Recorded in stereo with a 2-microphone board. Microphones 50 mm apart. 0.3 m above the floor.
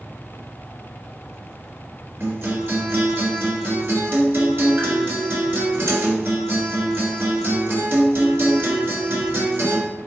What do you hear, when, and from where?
2.2 s a guitar: 50° right (ahead or behind), 2 m